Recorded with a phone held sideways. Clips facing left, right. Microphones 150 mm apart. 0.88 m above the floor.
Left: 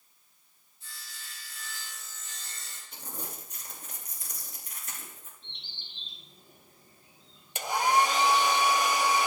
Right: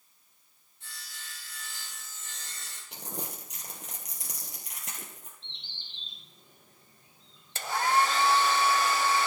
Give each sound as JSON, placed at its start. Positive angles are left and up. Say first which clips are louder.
{"t": 0.8, "sound": "sawing", "louder": "right 1 dB", "side_deg": -75, "distance_m": 7.5}
{"t": 2.9, "sound": "crumpling", "louder": "right 3 dB", "side_deg": -75, "distance_m": 3.5}
{"t": 5.4, "sound": "a bird", "louder": "left 1 dB", "side_deg": 10, "distance_m": 7.5}
{"t": 7.5, "sound": "a hair dryer", "louder": "left 1 dB", "side_deg": 15, "distance_m": 0.7}